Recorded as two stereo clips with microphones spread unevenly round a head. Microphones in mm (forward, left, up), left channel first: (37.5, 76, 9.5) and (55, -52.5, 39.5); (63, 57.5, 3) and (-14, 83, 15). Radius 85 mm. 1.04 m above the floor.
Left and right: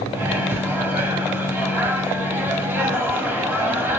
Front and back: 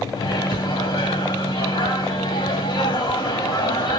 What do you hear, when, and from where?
0.1 s a microwave: 5° right, 1.3 m